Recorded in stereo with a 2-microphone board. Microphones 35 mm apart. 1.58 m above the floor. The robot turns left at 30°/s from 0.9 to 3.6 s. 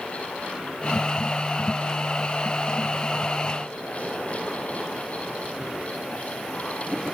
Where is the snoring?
I don't hear snoring.